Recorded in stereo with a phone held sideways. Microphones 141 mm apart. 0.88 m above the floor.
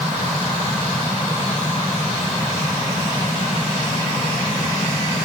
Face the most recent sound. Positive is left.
No sound to turn to.